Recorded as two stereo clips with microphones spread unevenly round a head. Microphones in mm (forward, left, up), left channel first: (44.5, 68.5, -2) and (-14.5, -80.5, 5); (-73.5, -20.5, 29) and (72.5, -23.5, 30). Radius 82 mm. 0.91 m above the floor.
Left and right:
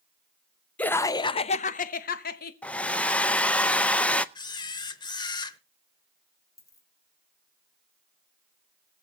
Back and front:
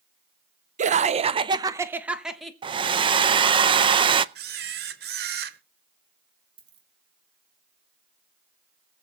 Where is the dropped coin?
5° right, 3.5 m.